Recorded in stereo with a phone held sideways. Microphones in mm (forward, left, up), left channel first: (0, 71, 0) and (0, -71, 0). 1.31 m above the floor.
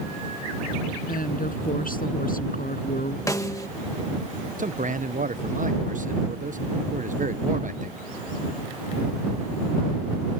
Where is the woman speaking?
80° left.